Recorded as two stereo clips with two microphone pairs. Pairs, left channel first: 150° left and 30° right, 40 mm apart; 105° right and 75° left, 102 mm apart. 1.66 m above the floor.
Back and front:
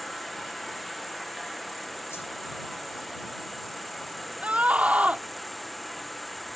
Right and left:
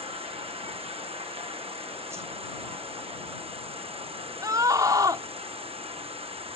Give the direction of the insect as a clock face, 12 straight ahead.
10 o'clock.